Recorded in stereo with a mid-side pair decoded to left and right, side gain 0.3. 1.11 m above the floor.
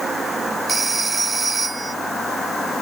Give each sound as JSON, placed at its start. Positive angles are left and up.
{"t": 0.7, "sound": "a phone ringing", "azimuth_deg": -35}